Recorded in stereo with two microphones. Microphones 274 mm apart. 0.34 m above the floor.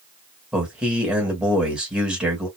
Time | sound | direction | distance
0.5 | a man speaking | 5° right (ahead or behind) | 1.6 m